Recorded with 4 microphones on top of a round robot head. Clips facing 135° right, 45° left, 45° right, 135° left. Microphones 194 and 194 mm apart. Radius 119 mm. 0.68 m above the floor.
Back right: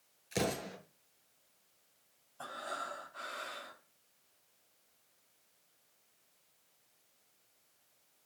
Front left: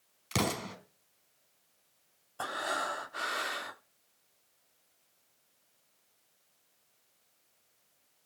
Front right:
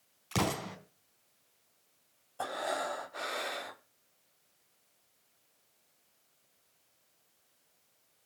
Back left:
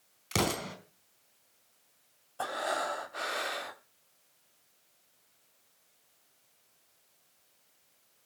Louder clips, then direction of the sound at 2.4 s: Front left 8 dB, back left 1 dB; 45° left.